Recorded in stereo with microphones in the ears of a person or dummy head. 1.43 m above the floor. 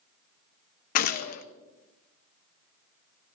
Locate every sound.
0.9 s a gunshot: 50° left (ahead or behind), 0.6 m